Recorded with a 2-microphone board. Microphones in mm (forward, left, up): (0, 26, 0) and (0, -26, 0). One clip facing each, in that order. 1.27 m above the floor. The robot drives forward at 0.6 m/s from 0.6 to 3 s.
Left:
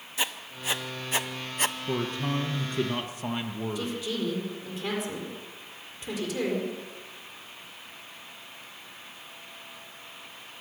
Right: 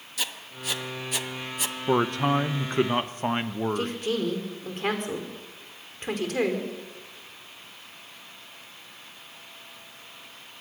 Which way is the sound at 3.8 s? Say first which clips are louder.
Right 4 dB; 55° right (ahead or behind).